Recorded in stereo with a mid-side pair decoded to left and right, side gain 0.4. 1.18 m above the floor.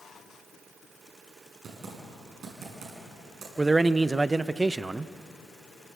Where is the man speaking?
25° right, 0.6 m.